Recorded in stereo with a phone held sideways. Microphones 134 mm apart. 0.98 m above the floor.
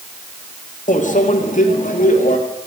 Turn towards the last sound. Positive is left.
turn(degrees=70)  # may be behind; listen again after turning